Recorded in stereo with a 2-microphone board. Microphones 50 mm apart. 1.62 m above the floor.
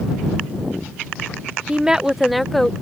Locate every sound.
1.7 s a woman speaking: 20° right (ahead or behind); by 2.7 s 10° left (ahead or behind)